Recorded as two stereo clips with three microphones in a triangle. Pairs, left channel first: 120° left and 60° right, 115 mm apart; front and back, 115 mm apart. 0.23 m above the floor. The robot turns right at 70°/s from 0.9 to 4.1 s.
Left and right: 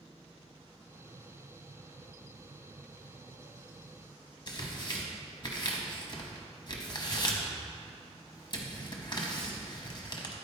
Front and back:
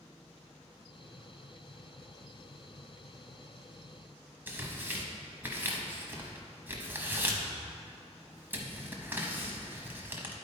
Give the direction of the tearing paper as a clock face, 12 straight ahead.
8 o'clock.